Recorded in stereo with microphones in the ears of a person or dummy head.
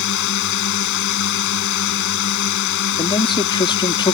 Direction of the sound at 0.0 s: 65° left (ahead or behind).